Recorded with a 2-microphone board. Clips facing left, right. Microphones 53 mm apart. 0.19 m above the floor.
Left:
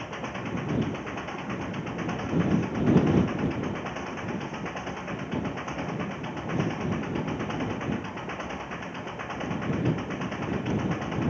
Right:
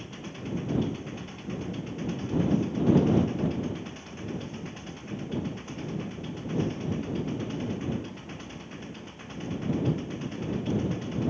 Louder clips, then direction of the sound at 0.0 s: Left 5 dB; 45° left (ahead or behind).